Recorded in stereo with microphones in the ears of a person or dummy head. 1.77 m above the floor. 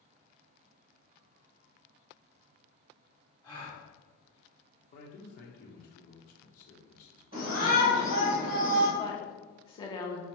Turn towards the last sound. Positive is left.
turn(degrees=20)  # may be behind; listen again after turning